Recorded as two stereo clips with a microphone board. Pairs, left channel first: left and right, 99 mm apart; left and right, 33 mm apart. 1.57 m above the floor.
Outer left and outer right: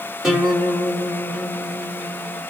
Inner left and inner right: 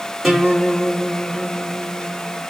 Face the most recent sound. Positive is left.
turn(degrees=-5)  # may be behind; listen again after turning